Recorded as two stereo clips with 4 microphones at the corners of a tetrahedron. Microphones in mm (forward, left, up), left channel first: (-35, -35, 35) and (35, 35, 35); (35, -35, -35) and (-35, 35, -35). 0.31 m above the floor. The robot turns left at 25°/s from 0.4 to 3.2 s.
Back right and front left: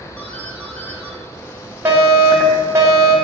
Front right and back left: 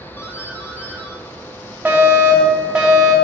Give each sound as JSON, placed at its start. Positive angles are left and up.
{"t": 0.2, "sound": "a doorbell", "azimuth_deg": -75, "distance_m": 2.0}
{"t": 1.9, "sound": "a fire alarm", "azimuth_deg": 85, "distance_m": 2.5}